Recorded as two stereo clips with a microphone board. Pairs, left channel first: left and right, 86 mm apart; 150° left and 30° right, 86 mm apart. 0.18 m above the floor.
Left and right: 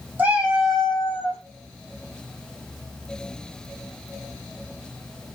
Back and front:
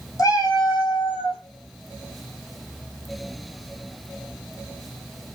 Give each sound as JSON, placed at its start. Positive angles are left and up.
{"t": 0.2, "sound": "a cat meowing", "azimuth_deg": -160, "distance_m": 1.3}